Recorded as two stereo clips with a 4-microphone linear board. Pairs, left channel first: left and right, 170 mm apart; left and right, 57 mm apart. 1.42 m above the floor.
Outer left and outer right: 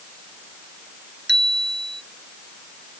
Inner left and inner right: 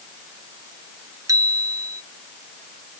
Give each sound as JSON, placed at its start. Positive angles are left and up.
{"t": 1.3, "sound": "a bicycle bell", "side_deg": -85}